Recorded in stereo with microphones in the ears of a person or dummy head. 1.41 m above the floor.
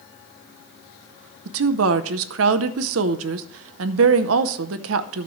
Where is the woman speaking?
75° right (ahead or behind), 0.7 m.